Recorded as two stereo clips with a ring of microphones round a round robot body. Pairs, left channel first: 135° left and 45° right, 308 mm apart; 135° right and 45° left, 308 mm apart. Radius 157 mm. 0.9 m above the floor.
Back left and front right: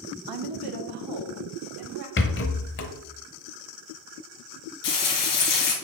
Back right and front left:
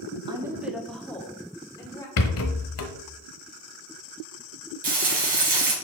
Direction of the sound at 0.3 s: 30° right.